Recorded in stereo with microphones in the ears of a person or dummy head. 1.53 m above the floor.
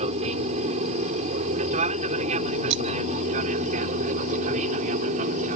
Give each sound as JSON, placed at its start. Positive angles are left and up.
{"t": 0.0, "sound": "an aircraft", "side_deg": -35}
{"t": 2.7, "sound": "breaking glass", "side_deg": -65}